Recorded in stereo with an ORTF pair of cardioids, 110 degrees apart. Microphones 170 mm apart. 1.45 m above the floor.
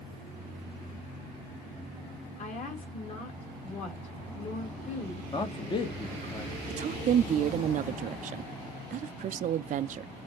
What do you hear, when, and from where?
2.4 s a woman speaking: 45° left, 3 m
5.3 s a man speaking: 30° left, 1.3 m
6.7 s a woman speaking: 50° right, 0.6 m